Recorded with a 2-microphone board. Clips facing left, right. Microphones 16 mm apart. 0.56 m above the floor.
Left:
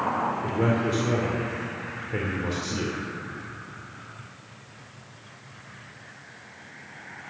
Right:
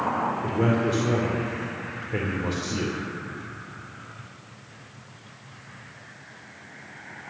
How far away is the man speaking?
About 2.0 m.